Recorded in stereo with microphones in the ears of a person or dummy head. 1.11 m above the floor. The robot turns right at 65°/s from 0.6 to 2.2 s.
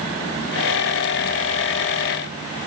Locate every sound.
Only background noise.